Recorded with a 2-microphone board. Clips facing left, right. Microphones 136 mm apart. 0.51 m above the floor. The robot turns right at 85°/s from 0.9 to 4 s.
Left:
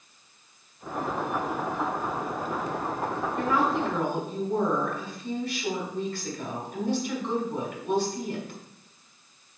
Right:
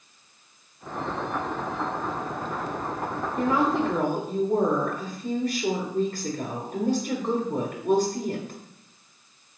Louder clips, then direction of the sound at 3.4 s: Right 3 dB; 155° right.